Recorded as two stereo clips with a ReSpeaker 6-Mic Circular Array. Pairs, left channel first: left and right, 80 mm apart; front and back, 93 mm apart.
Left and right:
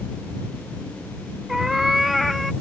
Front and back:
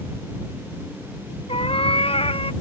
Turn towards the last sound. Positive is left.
turn(degrees=0)